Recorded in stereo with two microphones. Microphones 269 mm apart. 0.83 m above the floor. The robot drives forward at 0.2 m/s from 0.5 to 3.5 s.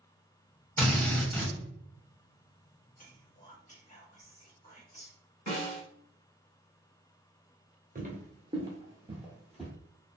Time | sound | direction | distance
0.8 | a drill | 10° left (ahead or behind) | 1.0 m
3.0 | whispering | 30° left (ahead or behind) | 1.0 m
5.5 | a snare drum | 80° left | 1.4 m
8.0 | footsteps | 30° right (ahead or behind) | 0.9 m